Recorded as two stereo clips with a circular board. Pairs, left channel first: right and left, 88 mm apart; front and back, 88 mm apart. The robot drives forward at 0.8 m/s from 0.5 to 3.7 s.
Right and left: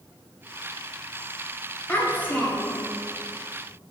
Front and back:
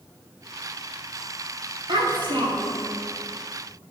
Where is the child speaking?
160° right, 2 m; by 2.9 s 165° right, 3 m.